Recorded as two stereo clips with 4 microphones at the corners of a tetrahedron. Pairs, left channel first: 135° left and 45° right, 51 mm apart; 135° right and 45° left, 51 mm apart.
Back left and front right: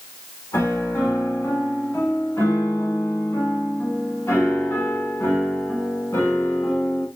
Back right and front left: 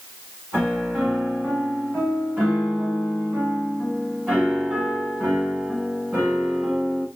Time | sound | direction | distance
0.5 | a piano | 100° left | 6 m